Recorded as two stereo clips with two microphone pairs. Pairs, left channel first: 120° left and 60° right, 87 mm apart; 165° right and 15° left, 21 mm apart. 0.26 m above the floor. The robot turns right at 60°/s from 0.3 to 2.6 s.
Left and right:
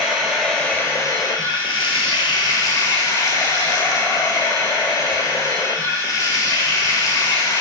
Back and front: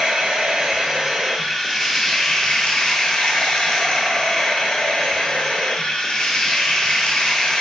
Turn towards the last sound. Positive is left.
turn(degrees=165)